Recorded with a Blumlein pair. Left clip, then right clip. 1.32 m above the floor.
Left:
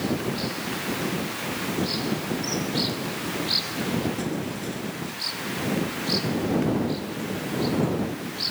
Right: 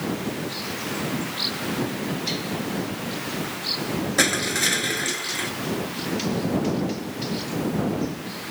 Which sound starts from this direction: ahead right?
Crushing, at 4.2 s.